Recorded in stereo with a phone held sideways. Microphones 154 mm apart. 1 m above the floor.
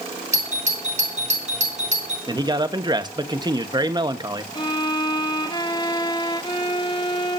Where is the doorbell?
50° right (ahead or behind), 4.5 m.